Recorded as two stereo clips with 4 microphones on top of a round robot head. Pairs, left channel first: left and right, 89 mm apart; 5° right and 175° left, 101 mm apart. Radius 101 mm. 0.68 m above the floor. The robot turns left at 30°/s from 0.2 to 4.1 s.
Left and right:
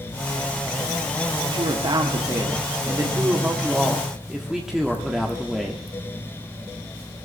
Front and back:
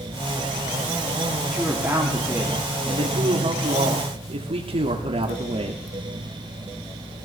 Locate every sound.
1.4 s a woman speaking: 95° right, 1.9 m; by 5.8 s 175° right, 1.9 m